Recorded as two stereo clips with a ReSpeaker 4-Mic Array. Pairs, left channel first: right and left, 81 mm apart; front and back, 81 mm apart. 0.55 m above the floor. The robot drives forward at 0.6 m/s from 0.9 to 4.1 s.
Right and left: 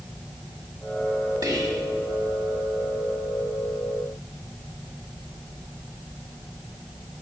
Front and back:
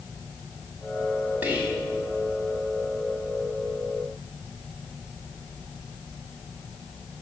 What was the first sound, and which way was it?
Whispering, 115° left.